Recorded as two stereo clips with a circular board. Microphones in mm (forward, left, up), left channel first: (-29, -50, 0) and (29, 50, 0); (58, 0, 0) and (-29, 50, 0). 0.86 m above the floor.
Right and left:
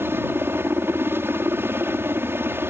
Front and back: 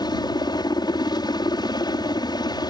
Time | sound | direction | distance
0.0 | a helicopter | 5° right | ?